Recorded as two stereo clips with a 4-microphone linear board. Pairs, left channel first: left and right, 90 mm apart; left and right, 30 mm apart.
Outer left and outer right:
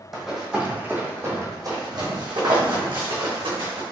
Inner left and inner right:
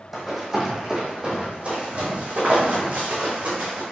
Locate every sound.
0.1 s running footsteps: centre (ahead or behind), 1.7 m; by 3.8 s 75° right (ahead or behind), 2.5 m